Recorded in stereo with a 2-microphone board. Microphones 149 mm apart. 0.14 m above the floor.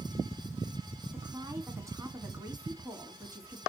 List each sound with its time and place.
1.1 s a woman speaking: 20° right (ahead or behind), 1.5 m